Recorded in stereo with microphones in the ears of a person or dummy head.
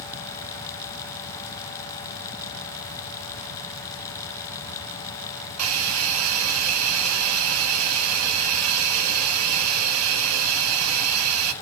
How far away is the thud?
I don't hear a thud.